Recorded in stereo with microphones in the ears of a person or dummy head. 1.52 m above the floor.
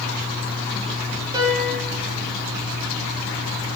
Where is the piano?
25° right (ahead or behind), 4.5 m.